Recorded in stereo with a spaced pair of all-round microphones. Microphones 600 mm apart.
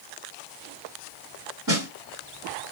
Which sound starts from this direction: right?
A snare drum, at 1.7 s.